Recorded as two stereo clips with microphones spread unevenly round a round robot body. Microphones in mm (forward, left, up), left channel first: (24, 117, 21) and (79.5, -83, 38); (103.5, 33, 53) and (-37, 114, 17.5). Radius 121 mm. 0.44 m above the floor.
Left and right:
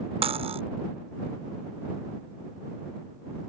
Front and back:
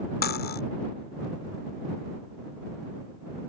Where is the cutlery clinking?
10° right.